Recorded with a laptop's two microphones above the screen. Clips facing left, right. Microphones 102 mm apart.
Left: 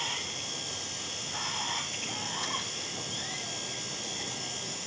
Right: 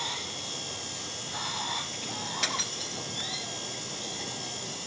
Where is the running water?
5° right (ahead or behind).